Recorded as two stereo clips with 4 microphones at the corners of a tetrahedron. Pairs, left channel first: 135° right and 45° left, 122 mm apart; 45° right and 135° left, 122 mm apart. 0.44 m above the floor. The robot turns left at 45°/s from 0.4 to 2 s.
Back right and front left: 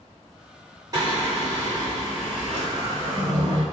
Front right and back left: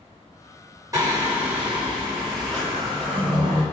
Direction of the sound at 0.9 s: 90° left.